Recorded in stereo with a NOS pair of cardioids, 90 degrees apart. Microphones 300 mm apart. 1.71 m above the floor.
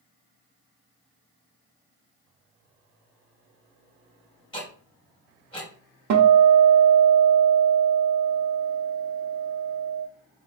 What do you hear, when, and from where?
4.5 s ticking: 15° left, 1.9 m
6.1 s a guitar: 65° right, 0.8 m